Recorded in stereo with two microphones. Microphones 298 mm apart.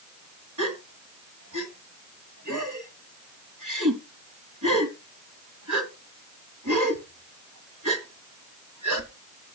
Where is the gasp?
80° right, 1.9 m.